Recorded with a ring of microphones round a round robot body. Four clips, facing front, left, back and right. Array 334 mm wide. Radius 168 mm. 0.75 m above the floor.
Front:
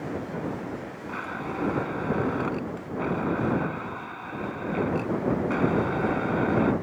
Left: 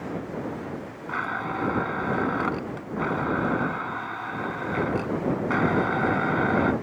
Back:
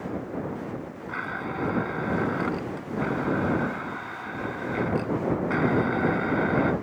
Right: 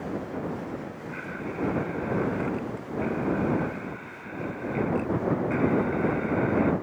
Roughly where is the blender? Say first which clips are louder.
Left 8 dB, back 1 dB; left.